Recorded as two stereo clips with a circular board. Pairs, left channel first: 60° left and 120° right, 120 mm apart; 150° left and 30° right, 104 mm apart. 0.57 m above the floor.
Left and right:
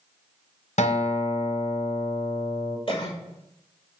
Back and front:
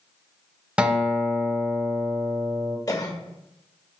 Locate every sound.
0.8 s a guitar: 50° left, 0.9 m
2.9 s a cough: 95° left, 1.7 m